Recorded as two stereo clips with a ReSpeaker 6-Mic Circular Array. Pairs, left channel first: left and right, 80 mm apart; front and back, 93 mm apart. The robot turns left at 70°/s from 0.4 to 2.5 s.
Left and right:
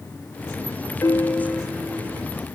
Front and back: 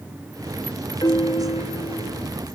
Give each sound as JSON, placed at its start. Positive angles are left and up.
{"t": 1.0, "sound": "a piano", "azimuth_deg": 40, "distance_m": 0.7}